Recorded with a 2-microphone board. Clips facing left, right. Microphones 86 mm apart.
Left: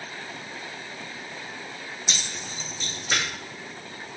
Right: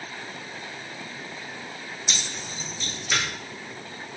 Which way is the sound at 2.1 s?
35° left (ahead or behind).